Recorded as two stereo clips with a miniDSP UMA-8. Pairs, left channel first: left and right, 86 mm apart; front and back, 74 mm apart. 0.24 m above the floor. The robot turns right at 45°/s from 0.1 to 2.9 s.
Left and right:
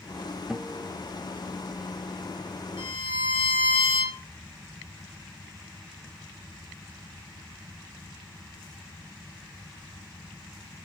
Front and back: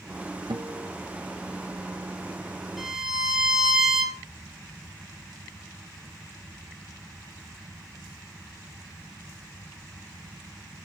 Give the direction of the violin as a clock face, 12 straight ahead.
9 o'clock.